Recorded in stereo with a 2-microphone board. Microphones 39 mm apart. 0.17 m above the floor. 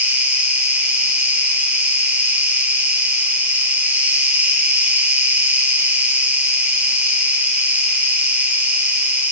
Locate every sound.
0.0 s an insect: 45° right (ahead or behind), 1.4 m